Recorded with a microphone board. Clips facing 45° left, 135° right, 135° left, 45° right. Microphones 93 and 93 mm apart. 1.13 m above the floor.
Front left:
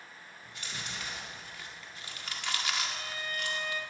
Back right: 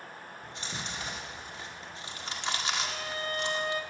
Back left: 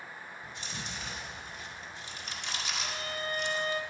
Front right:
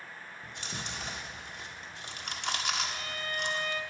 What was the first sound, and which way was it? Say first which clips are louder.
Chewing: back right 3 dB, front right 2 dB; 70° right.